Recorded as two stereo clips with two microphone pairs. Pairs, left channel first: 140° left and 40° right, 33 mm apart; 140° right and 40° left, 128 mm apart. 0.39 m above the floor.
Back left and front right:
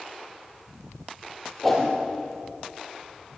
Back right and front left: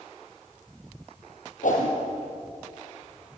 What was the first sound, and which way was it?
A whoosh, 135° right.